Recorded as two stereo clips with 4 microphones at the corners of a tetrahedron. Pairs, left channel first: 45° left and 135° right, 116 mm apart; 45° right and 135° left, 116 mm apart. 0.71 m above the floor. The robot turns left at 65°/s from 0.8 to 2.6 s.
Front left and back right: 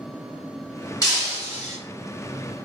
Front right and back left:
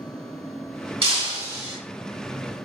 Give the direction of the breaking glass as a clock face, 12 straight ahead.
9 o'clock.